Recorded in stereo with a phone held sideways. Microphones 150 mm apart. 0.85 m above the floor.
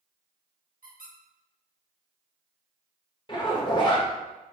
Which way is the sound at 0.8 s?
75° right (ahead or behind).